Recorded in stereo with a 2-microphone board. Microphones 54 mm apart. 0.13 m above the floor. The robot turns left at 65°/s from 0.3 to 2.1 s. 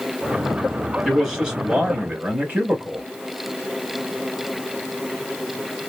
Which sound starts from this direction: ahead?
A man speaking, at 1.1 s.